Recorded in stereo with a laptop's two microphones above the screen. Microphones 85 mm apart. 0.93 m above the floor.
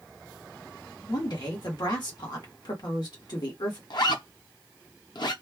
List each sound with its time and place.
1.1 s a woman speaking: 55° left (ahead or behind), 1.5 m
3.9 s a zipper: 60° left (ahead or behind), 0.7 m